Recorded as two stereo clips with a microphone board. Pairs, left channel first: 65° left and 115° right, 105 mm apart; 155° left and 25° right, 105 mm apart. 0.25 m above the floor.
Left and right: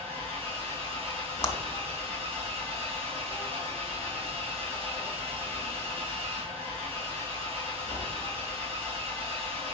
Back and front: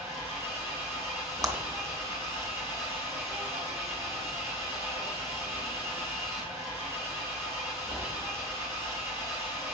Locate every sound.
0.0 s an engine running: 85° right, 6.5 m
1.4 s a clap: 20° left, 1.9 m